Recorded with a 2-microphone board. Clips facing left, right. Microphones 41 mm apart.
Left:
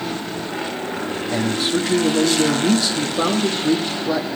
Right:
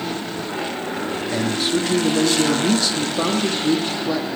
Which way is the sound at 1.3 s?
5° left (ahead or behind).